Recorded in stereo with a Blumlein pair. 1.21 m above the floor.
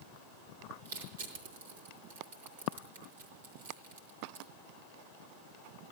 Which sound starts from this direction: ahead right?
Crushing, at 0.8 s.